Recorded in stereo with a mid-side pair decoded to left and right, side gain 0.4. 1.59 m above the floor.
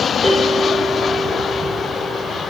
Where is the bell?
5° left, 4 m.